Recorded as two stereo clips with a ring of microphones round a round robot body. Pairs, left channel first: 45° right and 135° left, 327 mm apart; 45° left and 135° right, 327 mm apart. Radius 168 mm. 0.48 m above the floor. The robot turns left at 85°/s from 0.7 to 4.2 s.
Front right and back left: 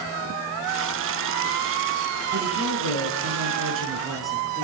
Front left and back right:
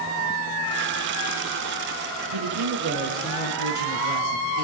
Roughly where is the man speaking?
Behind right.